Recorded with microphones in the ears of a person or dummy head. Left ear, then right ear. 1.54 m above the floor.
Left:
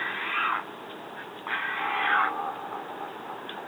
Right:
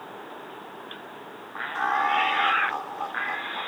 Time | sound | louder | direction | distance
1.8 | laughter | right 3 dB | 90° right | ?